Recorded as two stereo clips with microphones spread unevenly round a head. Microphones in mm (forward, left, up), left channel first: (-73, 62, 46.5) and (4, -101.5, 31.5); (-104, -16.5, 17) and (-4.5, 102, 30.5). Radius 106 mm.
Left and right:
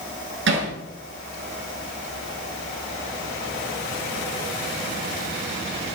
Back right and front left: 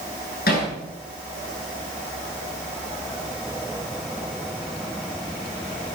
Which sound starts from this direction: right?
Hammering, at 0.5 s.